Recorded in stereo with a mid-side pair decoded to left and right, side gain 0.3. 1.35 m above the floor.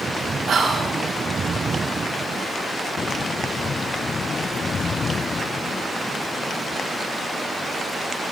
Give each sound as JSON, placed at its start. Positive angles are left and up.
{"t": 0.5, "sound": "whispering", "azimuth_deg": -70, "distance_m": 5.5}